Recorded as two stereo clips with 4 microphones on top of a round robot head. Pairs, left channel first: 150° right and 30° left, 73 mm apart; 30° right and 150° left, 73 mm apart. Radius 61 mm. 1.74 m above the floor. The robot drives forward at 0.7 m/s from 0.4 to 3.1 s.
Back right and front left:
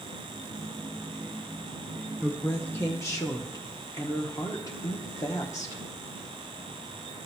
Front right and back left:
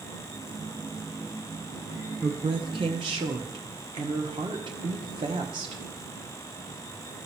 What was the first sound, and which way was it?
A woman speaking, 125° left.